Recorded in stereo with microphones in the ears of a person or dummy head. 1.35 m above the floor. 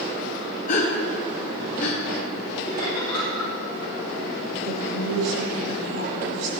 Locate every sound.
0.7 s a gasp: 50° left (ahead or behind), 1.3 m
2.6 s laughter: 25° left (ahead or behind), 3 m
4.6 s a woman speaking: 80° right, 4 m